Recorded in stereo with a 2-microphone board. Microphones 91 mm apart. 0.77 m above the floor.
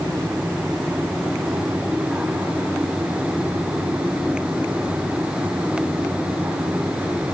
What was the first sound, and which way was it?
Only background noise.